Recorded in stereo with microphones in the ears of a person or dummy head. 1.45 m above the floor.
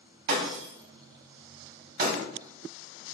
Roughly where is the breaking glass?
Right.